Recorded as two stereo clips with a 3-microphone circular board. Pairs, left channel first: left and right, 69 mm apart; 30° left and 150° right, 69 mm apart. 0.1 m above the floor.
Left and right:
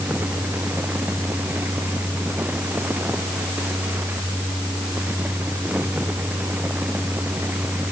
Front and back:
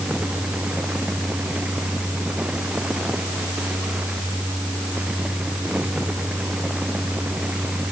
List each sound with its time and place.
Only background noise.